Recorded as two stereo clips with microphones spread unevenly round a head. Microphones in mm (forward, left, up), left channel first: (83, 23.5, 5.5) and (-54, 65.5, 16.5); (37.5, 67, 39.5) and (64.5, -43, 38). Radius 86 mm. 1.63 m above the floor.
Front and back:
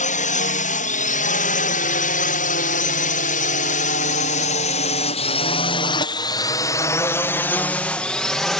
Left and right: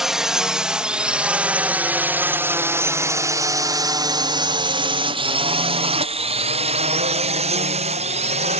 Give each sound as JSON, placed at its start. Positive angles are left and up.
{"t": 0.0, "sound": "a drone", "azimuth_deg": 10}